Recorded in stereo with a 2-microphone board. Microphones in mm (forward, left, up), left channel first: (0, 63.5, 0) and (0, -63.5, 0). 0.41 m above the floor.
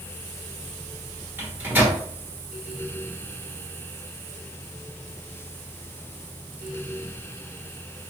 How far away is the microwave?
About 1.0 m.